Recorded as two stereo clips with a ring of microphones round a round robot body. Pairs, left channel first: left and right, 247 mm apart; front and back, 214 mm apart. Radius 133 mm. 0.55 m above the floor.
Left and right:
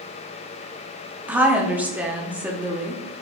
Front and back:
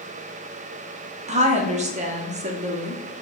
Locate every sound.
1.3 s a woman speaking: 170° right, 0.8 m